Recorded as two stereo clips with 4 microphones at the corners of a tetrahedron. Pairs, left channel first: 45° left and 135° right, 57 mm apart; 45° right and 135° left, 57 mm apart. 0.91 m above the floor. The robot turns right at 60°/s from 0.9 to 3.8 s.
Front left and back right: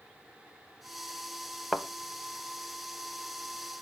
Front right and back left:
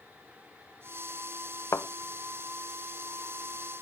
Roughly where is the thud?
Ahead right.